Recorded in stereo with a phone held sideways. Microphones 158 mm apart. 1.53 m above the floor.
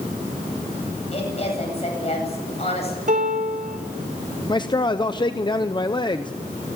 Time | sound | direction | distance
1.1 | a woman speaking | 40° left (ahead or behind) | 9.5 m
3.1 | a piano | 55° right (ahead or behind) | 4.5 m
4.5 | a man speaking | 30° left (ahead or behind) | 0.8 m